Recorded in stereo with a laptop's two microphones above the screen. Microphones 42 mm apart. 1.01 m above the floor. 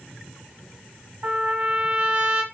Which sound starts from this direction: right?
A trumpet, at 1.2 s.